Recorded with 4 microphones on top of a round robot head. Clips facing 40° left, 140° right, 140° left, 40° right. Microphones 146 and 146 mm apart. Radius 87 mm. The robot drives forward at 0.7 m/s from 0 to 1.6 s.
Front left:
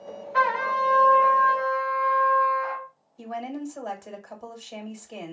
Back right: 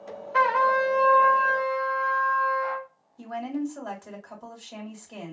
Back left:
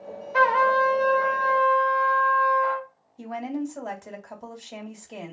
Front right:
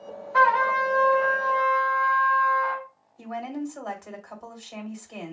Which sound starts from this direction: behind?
A trumpet, at 0.3 s.